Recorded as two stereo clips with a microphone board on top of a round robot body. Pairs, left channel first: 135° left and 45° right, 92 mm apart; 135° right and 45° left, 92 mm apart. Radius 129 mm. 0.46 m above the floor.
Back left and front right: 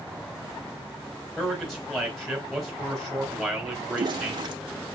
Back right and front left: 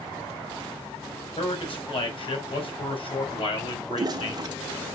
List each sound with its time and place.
1.4 s a man speaking: 140° right, 3 m
3.9 s a toilet flushing: 5° right, 0.6 m